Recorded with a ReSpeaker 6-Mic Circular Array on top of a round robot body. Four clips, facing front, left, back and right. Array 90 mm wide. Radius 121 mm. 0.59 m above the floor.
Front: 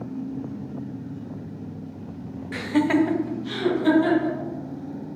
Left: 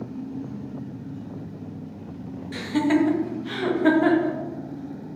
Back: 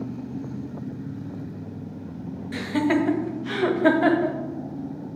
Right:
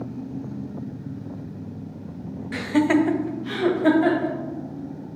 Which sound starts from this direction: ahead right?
Laughter, at 2.5 s.